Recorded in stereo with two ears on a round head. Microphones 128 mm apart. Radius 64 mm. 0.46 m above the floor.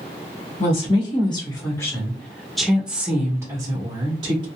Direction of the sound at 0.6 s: 40° left (ahead or behind).